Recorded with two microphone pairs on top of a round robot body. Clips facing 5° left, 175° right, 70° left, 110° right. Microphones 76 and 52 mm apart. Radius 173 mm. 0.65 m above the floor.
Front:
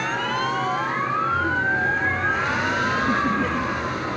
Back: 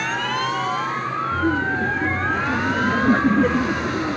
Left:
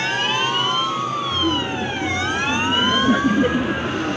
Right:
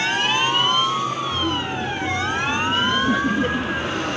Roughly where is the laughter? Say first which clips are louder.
Back 1 dB, left 2 dB; behind left.